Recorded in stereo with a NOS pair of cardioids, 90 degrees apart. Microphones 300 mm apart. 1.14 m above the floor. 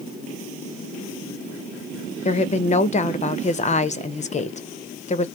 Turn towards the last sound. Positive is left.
turn(degrees=25)